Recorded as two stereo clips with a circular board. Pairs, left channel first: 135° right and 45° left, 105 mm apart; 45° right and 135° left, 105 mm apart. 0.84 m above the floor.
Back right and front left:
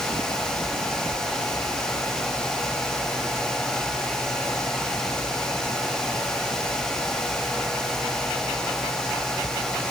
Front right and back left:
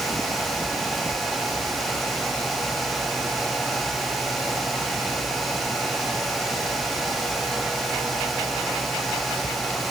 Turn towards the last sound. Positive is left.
No sound to turn to.